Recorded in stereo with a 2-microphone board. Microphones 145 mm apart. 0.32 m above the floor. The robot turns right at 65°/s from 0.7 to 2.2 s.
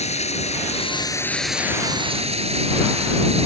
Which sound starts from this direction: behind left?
Running water, at 0.0 s.